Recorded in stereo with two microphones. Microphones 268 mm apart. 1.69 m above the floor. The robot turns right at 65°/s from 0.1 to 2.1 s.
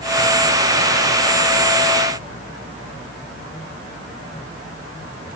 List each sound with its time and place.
Only background noise.